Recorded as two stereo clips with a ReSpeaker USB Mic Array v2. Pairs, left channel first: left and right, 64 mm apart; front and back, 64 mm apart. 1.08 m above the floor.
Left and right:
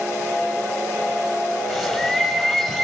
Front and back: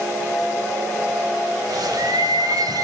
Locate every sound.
1.7 s a bird: straight behind, 3.5 m